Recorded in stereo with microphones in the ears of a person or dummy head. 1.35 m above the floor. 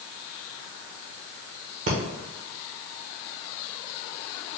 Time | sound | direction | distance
1.9 | breathing | 45° right (ahead or behind) | 0.7 m